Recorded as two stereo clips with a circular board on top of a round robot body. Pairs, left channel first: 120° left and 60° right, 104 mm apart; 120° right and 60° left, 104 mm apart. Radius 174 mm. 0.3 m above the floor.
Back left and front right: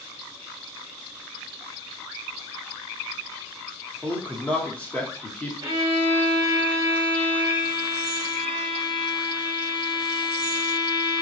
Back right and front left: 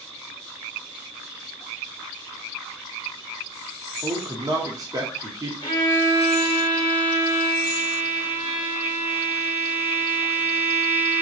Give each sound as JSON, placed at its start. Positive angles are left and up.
{"t": 4.0, "sound": "a man speaking", "azimuth_deg": 50, "distance_m": 1.3}
{"t": 5.6, "sound": "a violin", "azimuth_deg": -90, "distance_m": 1.6}